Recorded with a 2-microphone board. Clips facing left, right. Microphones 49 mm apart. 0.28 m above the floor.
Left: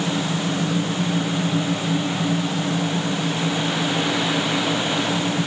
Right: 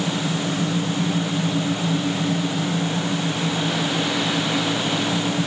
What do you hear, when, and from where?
Only background noise.